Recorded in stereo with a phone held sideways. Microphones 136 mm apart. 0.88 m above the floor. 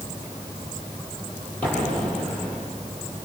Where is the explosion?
15° left (ahead or behind), 8 m.